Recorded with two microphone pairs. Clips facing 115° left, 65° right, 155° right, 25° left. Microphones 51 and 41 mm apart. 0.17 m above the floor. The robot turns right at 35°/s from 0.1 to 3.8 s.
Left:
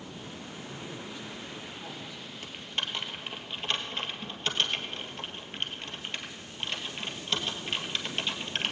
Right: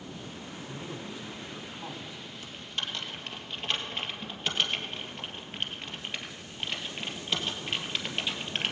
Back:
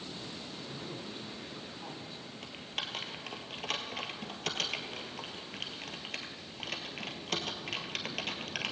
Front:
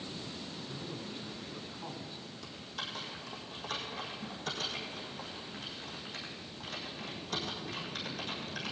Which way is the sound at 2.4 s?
165° left.